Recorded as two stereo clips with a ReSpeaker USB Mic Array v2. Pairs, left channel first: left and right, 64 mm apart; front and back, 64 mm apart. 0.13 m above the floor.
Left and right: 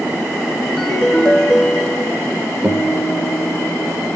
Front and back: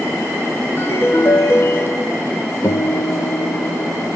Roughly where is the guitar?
Ahead right.